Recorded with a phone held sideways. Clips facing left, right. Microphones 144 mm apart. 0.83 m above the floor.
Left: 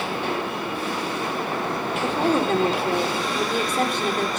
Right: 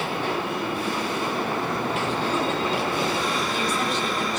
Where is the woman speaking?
50° left (ahead or behind), 2.5 m.